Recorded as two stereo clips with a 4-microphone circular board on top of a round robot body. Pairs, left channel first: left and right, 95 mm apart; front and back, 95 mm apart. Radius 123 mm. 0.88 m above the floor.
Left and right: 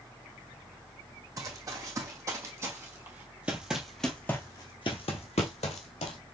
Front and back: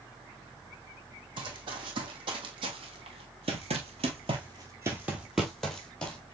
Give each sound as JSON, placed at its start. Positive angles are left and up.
{"t": 1.4, "sound": "running footsteps", "azimuth_deg": -145, "distance_m": 2.0}